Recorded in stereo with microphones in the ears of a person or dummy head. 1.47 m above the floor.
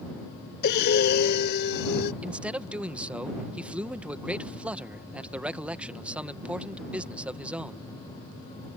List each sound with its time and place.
0.6 s breathing: 60° left (ahead or behind)
2.2 s a man speaking: 5° right (ahead or behind)